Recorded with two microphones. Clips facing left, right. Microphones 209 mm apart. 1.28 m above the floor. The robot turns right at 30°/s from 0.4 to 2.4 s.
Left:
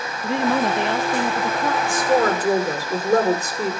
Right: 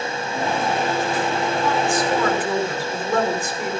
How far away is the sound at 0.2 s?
About 0.8 m.